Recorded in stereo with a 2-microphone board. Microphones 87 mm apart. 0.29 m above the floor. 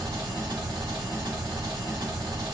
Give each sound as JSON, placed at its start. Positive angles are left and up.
{"t": 0.0, "sound": "an engine running", "side_deg": -55, "distance_m": 1.3}